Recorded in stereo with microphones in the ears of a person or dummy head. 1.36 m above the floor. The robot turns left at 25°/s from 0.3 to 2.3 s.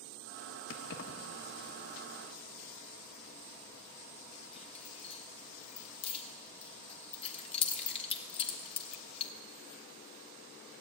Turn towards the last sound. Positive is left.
turn(degrees=35)  # may be behind; listen again after turning